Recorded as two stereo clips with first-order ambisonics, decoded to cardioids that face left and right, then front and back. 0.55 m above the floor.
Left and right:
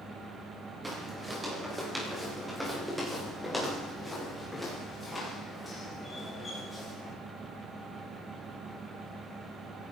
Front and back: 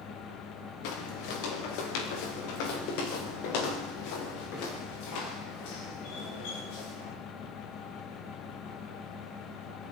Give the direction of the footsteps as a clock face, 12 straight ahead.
12 o'clock.